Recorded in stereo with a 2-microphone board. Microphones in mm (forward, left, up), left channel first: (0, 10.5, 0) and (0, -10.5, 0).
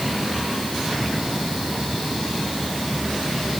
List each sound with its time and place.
Only background noise.